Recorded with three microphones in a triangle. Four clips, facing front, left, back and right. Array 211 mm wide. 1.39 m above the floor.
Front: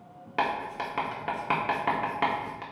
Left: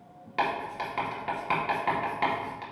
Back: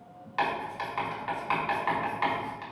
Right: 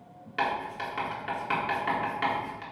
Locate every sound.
0.4 s writing: 10° left, 1.8 m